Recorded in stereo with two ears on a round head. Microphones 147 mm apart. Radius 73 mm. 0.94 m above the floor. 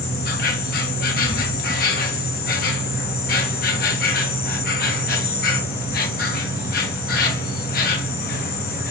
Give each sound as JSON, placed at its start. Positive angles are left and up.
{"t": 0.0, "sound": "an insect", "side_deg": 60, "distance_m": 1.1}